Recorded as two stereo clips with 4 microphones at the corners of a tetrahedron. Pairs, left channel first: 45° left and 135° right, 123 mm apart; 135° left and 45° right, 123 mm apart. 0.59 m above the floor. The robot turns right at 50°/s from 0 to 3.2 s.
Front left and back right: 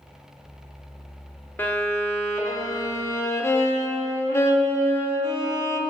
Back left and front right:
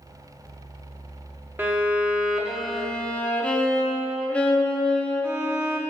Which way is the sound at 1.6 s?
5° right.